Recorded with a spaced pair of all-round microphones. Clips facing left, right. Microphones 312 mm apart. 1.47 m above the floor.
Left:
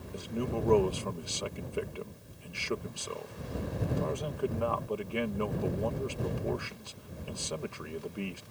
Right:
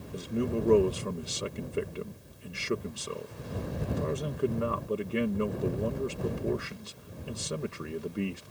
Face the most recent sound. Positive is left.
turn(degrees=-25)  # may be behind; listen again after turning